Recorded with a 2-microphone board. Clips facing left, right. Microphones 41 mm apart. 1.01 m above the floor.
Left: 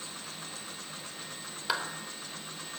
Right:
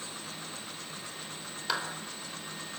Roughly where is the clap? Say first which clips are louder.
Left 1 dB; centre.